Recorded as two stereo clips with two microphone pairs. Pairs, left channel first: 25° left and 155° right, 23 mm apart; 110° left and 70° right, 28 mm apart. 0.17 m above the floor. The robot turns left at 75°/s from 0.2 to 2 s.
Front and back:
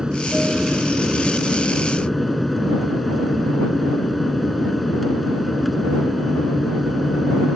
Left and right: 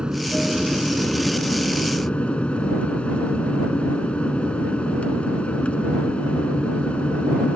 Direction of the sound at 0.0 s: 115° right.